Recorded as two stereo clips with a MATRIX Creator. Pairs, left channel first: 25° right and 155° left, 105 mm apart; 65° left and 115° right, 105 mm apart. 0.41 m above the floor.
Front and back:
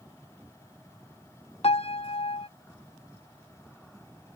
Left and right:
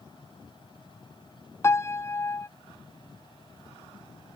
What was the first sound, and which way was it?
A piano, 5° left.